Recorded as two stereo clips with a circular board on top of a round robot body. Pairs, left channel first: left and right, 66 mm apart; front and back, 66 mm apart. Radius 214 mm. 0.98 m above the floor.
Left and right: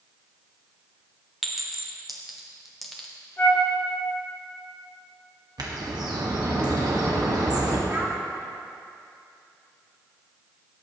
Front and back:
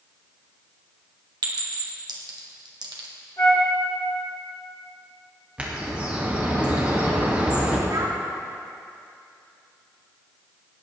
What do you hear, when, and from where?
1.4 s a clink: straight behind, 1.3 m
3.4 s a flute: 35° left, 2.5 m
5.6 s a bird: 110° right, 1.8 m
7.9 s a child speaking: 150° right, 1.9 m